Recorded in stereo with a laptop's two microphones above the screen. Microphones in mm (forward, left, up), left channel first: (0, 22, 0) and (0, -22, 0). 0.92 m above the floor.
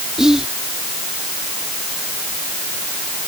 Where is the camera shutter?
I don't hear a camera shutter.